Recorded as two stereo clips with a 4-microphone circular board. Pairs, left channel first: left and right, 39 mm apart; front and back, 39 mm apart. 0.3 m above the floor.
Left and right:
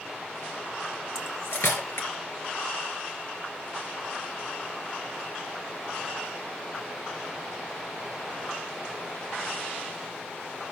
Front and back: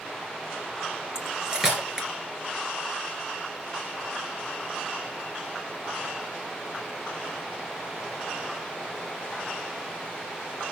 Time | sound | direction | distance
1.1 | cutlery clinking | 110° left | 2.5 m